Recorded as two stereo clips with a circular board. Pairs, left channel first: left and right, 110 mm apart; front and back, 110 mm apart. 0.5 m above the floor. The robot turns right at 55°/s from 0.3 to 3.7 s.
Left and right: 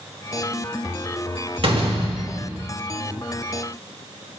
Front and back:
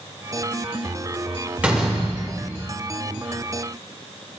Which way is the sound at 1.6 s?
105° right.